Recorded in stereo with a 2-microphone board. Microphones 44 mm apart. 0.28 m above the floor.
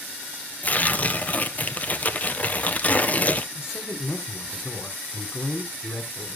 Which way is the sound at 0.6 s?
35° left (ahead or behind).